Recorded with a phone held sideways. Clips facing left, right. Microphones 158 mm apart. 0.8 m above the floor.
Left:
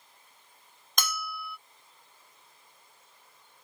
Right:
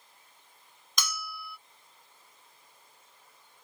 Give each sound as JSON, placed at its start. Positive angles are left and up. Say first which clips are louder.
{"t": 1.0, "sound": "a bell", "louder": "left 3 dB", "side_deg": 60}